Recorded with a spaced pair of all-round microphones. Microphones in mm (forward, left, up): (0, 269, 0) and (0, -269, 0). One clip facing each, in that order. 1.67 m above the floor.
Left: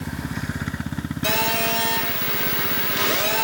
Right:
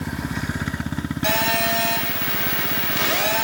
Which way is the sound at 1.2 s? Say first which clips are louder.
Left 1 dB; 15° right (ahead or behind).